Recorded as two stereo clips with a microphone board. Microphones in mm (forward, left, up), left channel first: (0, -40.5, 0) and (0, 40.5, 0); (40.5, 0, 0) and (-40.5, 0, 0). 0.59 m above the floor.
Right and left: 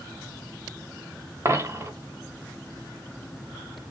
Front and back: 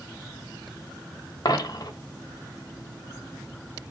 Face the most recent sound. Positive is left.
turn(degrees=35)